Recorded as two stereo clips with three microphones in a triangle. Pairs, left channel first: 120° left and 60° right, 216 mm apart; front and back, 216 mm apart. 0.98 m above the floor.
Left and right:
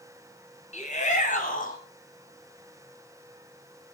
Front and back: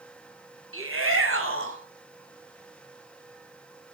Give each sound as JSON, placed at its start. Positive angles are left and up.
{"t": 0.7, "sound": "a shout", "azimuth_deg": 175, "distance_m": 7.0}